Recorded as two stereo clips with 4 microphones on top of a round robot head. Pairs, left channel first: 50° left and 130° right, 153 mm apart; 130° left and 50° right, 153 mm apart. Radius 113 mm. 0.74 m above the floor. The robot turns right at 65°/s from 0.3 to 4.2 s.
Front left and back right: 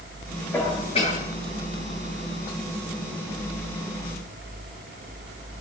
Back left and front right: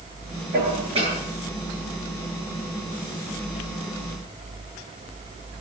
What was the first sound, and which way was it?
Dishes clattering, 30° right.